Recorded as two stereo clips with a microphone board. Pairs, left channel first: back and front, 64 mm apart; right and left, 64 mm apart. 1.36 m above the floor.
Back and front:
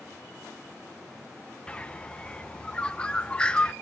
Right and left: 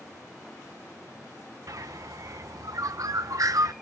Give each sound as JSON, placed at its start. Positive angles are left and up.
{"t": 1.7, "sound": "a bird", "azimuth_deg": 105, "distance_m": 0.5}